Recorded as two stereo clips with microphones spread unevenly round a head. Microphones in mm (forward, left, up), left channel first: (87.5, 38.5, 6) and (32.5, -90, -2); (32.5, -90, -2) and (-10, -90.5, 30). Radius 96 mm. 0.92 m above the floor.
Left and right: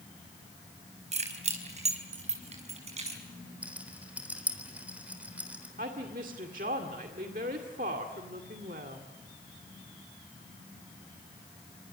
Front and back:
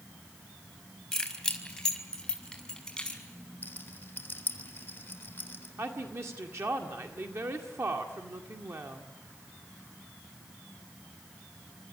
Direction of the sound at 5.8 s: 160° right.